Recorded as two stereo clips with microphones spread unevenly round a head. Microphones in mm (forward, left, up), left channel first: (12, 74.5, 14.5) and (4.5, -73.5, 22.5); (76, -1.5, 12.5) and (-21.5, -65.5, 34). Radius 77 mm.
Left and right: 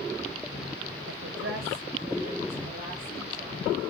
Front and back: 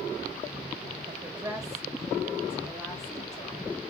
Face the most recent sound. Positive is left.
turn(degrees=-30)